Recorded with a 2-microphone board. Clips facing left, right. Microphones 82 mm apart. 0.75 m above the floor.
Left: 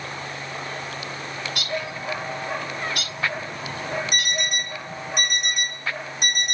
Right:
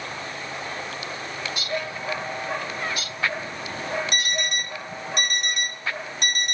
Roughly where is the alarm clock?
Centre.